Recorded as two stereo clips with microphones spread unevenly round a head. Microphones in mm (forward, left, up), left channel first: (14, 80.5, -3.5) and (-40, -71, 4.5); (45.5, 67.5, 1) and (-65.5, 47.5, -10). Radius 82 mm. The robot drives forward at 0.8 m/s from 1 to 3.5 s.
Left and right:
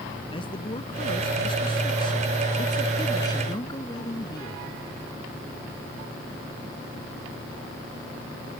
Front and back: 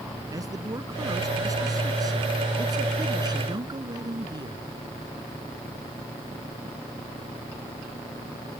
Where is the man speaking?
130° left; by 4.6 s 135° left.